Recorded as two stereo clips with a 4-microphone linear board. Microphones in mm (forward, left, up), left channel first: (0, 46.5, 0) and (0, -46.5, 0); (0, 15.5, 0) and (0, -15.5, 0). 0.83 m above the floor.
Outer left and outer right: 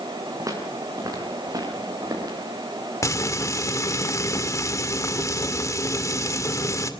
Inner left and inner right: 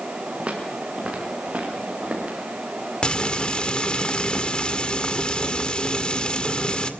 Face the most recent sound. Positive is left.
turn(degrees=35)  # may be behind; listen again after turning